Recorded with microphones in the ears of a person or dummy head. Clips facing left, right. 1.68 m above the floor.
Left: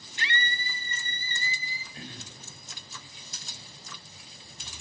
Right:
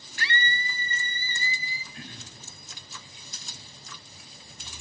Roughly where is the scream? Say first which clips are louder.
Right 3 dB; left.